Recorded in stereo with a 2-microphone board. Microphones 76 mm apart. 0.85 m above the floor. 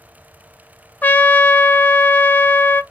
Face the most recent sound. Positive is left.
turn(degrees=20)  # may be behind; listen again after turning